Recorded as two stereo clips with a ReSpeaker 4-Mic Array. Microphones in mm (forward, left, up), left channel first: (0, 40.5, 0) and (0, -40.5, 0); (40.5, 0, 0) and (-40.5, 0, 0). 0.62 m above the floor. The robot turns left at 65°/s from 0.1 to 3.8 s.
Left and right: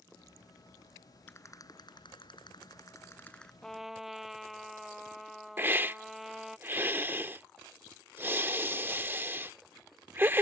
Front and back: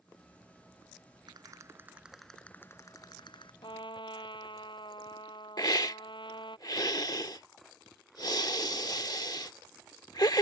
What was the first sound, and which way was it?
A rattle, 150° left.